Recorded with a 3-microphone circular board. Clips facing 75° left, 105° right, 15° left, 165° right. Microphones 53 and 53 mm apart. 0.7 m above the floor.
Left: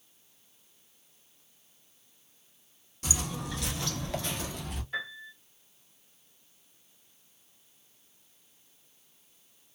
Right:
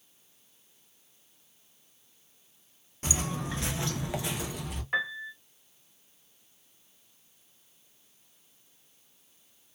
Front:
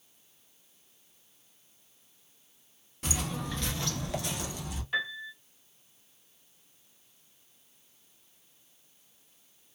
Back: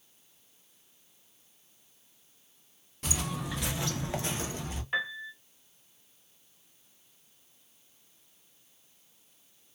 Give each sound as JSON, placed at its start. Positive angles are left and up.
{"t": 3.0, "sound": "footsteps", "azimuth_deg": -75, "distance_m": 0.8}
{"t": 4.9, "sound": "a piano", "azimuth_deg": -100, "distance_m": 0.8}